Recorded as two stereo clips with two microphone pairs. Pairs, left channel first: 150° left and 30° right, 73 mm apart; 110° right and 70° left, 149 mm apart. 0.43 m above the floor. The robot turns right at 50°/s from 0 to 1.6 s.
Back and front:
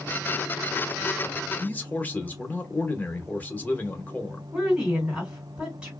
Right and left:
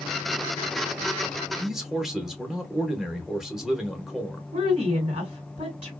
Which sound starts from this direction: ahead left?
A woman speaking, at 4.5 s.